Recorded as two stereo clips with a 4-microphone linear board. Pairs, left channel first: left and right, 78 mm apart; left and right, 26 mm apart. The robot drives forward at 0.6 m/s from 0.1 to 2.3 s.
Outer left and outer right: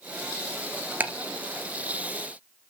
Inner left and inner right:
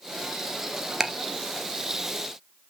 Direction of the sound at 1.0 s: 20° right (ahead or behind).